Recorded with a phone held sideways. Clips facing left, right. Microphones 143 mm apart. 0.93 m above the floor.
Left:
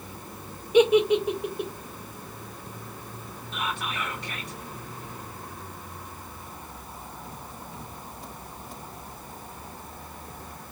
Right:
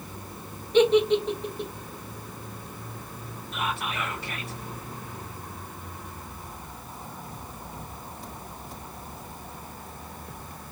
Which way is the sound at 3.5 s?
10° right (ahead or behind).